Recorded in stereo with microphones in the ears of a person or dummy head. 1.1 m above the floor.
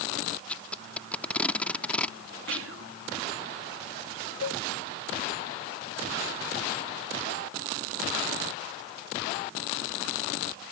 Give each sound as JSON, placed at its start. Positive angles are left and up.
{"t": 0.5, "sound": "tape being pulled", "side_deg": 10}
{"t": 2.5, "sound": "whispering", "side_deg": -65}
{"t": 4.4, "sound": "a cowbell", "side_deg": 65}